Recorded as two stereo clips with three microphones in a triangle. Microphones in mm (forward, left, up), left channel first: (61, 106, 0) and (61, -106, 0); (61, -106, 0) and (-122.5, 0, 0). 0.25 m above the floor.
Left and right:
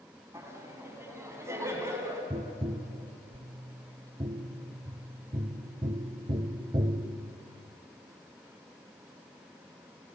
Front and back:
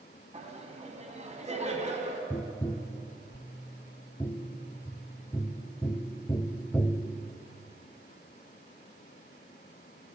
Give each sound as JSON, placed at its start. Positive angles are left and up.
{"t": 0.3, "sound": "laughter", "azimuth_deg": -165, "distance_m": 2.0}
{"t": 2.3, "sound": "tapping", "azimuth_deg": -90, "distance_m": 0.5}